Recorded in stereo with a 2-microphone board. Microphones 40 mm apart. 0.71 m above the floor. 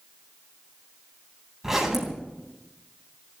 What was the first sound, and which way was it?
A zipper, 10° right (ahead or behind).